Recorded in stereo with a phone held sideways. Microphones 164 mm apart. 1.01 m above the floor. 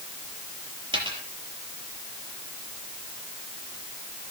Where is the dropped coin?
30° right (ahead or behind), 5 m.